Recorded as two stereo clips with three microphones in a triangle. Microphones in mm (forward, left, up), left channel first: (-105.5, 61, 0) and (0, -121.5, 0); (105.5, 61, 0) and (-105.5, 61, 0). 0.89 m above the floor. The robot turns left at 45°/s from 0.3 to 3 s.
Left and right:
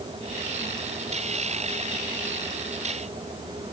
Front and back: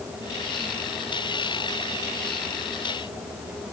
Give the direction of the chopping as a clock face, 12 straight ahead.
No chopping in this recording.